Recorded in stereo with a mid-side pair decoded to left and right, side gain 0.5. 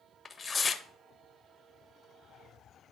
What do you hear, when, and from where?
0.2 s tearing paper: 30° left, 0.5 m